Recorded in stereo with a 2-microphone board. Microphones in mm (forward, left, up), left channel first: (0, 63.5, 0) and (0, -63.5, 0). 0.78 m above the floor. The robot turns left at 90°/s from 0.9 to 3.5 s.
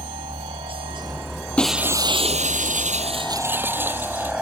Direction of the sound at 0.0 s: 135° right.